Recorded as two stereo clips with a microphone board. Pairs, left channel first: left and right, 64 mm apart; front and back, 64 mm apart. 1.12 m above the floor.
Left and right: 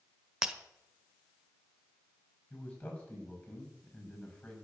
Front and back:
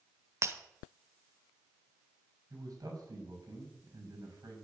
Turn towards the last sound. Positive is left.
turn(degrees=155)